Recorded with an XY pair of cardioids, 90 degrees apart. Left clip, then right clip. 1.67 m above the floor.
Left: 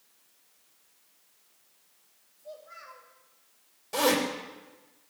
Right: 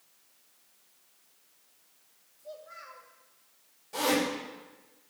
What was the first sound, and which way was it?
A child speaking, 5° right.